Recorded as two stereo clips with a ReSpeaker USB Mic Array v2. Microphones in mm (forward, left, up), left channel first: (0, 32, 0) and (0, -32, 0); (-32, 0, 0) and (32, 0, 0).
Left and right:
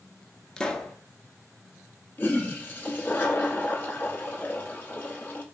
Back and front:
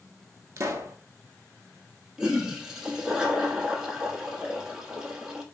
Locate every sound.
0.6 s a pop: 20° left, 0.5 m
2.2 s a toilet flushing: 70° left, 0.7 m